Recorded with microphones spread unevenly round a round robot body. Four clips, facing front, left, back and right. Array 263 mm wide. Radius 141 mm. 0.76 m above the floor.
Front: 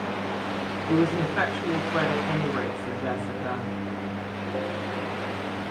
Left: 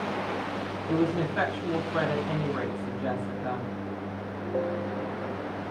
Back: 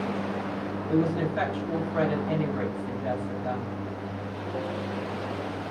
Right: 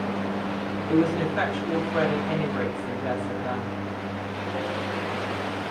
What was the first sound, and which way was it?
A woman speaking, 10° left.